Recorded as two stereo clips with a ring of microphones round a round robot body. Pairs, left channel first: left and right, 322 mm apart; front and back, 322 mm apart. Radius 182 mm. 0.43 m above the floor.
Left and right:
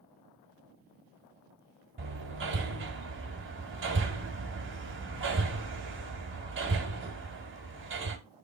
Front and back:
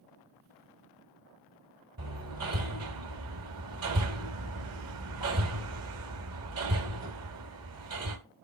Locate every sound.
2.0 s hammering: 140° right, 2.5 m